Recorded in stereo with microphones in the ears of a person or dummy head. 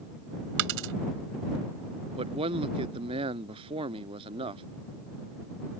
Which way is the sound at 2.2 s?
35° right (ahead or behind).